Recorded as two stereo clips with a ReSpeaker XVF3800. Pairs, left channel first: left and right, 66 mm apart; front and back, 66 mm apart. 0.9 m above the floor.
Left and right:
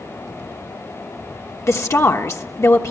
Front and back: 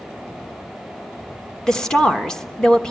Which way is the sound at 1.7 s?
75° left.